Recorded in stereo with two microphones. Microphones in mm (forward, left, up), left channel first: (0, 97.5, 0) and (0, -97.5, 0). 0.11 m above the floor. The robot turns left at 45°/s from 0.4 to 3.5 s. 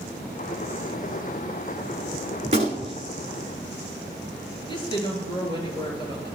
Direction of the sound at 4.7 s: 25° left (ahead or behind).